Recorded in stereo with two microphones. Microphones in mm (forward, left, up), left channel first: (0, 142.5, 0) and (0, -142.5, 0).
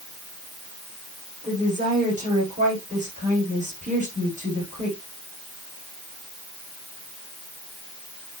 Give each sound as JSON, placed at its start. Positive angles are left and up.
{"t": 1.4, "sound": "a woman speaking", "side_deg": -25, "distance_m": 8.5}